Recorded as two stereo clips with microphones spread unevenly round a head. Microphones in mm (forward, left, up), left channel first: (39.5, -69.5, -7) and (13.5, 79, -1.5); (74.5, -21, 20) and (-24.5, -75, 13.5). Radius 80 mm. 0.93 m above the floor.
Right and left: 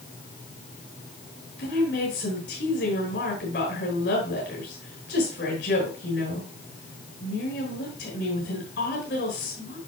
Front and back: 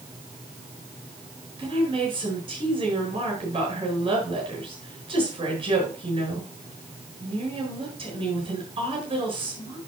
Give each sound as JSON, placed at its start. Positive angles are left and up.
{"t": 1.6, "sound": "a woman speaking", "azimuth_deg": -110, "distance_m": 8.5}